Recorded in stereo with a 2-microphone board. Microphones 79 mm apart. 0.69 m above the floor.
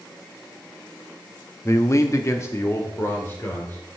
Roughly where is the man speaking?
Left.